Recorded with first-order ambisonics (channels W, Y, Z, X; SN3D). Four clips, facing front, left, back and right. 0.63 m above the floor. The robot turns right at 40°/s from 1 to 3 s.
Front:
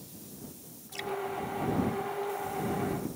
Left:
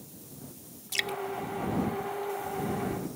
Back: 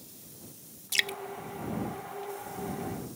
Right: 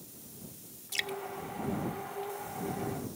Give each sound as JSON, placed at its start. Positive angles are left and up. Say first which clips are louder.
{"t": 0.9, "sound": "dripping", "louder": "left 3 dB, back 6 dB", "azimuth_deg": 165}